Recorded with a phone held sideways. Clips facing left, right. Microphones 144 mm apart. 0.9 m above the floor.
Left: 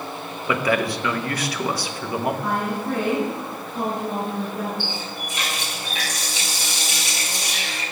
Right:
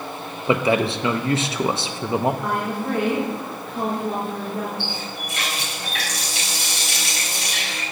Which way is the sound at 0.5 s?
25° right (ahead or behind).